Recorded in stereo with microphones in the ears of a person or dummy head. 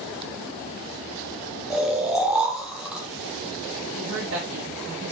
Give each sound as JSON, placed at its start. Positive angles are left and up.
{"t": 1.7, "sound": "snoring", "side_deg": -5, "distance_m": 0.7}
{"t": 4.0, "sound": "a woman speaking", "side_deg": -60, "distance_m": 0.9}